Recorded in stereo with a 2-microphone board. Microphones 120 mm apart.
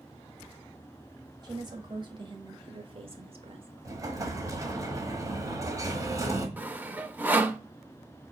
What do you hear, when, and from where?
1.4 s a woman speaking: 35° right (ahead or behind), 2.0 m; by 3.7 s 50° right (ahead or behind), 1.1 m
3.9 s an explosion: 30° right (ahead or behind), 1.2 m
6.6 s sawing: 15° right (ahead or behind), 0.7 m